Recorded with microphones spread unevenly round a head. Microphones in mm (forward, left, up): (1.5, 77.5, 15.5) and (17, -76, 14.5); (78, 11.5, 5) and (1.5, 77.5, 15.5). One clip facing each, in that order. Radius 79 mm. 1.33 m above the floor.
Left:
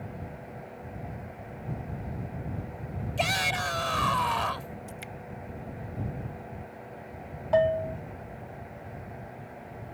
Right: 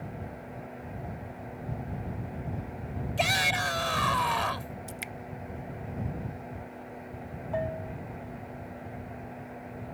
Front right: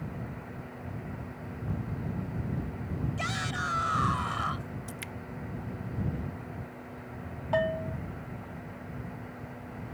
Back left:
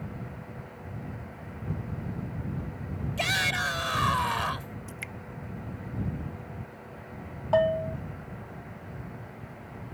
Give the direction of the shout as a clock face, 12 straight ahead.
6 o'clock.